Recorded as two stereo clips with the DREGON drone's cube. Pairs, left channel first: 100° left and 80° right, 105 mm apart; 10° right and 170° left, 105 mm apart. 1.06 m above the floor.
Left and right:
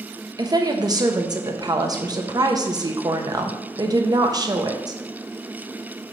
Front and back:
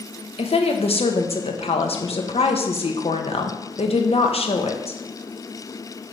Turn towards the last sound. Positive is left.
turn(degrees=-30)